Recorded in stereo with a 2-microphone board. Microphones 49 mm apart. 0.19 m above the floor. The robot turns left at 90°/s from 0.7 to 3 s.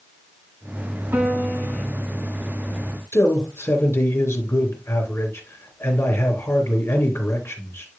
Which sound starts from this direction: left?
A man speaking, at 3.1 s.